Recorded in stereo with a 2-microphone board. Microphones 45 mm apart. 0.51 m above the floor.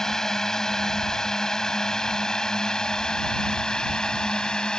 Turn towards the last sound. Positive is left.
turn(degrees=20)  # may be behind; listen again after turning